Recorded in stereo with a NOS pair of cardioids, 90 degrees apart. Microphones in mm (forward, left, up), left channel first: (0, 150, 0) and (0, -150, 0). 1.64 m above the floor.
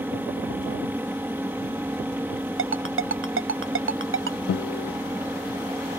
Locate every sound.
0.0 s a fan: 5° right
2.6 s a ringtone: 45° right
4.5 s a guitar: 55° left